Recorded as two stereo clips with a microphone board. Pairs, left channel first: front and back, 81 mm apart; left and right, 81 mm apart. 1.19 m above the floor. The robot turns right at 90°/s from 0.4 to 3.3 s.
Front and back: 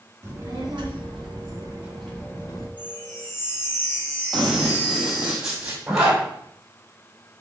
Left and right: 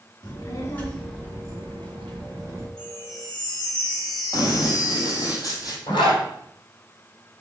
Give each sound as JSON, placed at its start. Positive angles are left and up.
{"t": 0.2, "sound": "a child speaking", "azimuth_deg": 125, "distance_m": 2.5}
{"t": 2.8, "sound": "a chime", "azimuth_deg": 10, "distance_m": 3.0}
{"t": 4.3, "sound": "running footsteps", "azimuth_deg": 85, "distance_m": 1.9}
{"t": 5.9, "sound": "a zipper", "azimuth_deg": 95, "distance_m": 3.0}